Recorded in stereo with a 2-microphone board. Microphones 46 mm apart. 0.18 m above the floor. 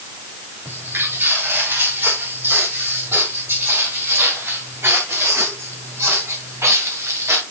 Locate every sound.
0.7 s footsteps: 60° right (ahead or behind), 5 m; by 7.4 s 85° right, 2.5 m